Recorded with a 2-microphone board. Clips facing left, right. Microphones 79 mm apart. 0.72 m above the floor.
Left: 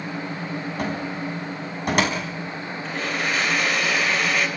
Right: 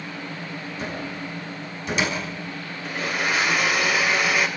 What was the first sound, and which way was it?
A cupboard door, 60° left (ahead or behind).